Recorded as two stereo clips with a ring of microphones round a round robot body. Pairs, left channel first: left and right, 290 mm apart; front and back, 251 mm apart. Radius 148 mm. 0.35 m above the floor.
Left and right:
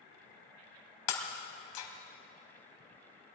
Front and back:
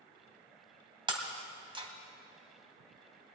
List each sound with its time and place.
1.1 s breaking glass: 110° left, 1.8 m